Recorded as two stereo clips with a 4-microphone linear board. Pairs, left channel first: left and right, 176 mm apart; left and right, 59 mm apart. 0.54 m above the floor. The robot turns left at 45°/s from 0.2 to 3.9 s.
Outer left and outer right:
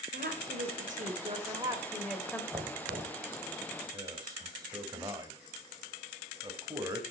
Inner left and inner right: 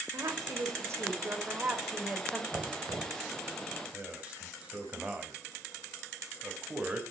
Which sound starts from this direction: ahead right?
Knocking, at 2.5 s.